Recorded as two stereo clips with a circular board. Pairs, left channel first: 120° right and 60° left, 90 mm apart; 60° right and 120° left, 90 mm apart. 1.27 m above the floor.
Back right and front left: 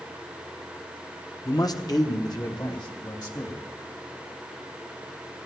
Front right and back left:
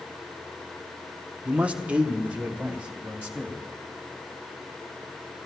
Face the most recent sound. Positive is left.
turn(degrees=-165)